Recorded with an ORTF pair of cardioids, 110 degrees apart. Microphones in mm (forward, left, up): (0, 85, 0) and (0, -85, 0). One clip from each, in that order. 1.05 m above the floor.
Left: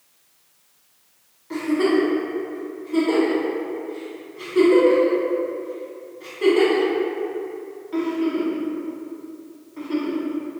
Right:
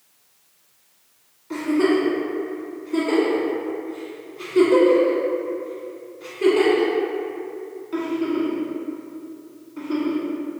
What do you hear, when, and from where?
1.5 s a giggle: 5° left, 1.4 m